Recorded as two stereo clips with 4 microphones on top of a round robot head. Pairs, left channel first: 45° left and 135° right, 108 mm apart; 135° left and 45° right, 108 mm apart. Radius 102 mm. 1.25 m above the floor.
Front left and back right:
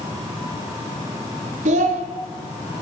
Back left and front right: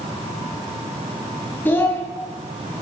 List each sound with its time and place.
1.6 s a child speaking: 150° right, 1.0 m